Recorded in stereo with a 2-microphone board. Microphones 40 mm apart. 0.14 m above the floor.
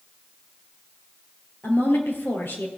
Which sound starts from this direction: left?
A woman speaking, at 1.6 s.